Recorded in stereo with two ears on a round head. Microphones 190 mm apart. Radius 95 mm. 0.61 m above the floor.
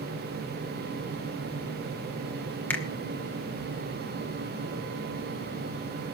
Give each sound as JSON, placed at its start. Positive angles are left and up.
{"t": 2.7, "sound": "a finger snap", "side_deg": 10, "distance_m": 2.0}